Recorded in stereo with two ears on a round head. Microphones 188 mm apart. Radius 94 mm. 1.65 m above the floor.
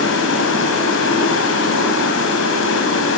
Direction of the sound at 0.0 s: 60° left (ahead or behind).